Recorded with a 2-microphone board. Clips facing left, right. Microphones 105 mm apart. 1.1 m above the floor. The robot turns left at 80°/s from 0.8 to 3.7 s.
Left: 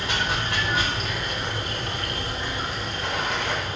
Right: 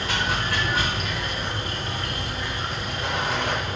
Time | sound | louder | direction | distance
0.0 | running water | right 1 dB | 160° left | 1.0 m